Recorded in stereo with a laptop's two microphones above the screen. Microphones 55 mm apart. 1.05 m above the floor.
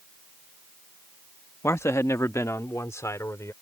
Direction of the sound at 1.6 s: 55° left (ahead or behind).